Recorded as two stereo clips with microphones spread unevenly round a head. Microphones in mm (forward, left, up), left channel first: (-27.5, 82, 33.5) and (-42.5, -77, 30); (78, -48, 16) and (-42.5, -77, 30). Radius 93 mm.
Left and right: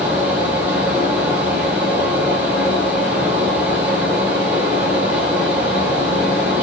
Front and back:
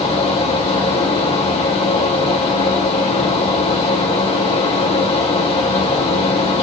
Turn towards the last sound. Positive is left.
turn(degrees=-15)